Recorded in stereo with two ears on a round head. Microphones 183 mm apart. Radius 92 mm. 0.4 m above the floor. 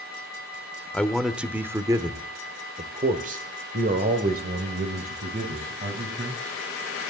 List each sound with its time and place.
0.9 s a man speaking: 5° left (ahead or behind), 1.1 m; by 6.6 s 50° right (ahead or behind), 3 m